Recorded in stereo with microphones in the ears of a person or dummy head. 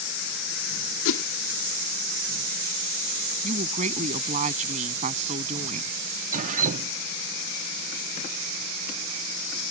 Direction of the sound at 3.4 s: 40° right (ahead or behind).